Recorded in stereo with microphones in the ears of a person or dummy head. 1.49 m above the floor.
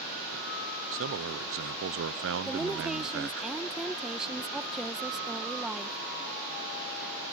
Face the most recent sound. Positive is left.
turn(degrees=0)  # may be behind; listen again after turning